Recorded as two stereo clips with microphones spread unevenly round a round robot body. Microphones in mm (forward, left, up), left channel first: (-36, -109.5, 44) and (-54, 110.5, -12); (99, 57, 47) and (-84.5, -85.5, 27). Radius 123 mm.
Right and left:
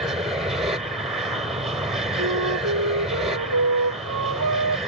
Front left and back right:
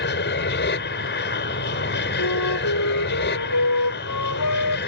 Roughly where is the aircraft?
Ahead.